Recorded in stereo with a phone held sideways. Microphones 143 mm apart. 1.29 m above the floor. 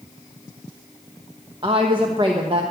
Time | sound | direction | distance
1.6 | a woman speaking | 35° right (ahead or behind) | 1.0 m